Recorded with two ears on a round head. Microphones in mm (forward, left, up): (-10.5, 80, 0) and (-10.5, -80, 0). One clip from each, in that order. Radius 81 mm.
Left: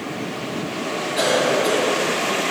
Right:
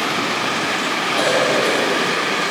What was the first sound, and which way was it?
A cough, 10° left (ahead or behind).